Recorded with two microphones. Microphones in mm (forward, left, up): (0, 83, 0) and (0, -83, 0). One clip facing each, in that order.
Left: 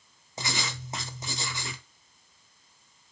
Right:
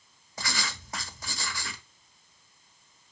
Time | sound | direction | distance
0.4 | writing | 20° left (ahead or behind) | 0.8 m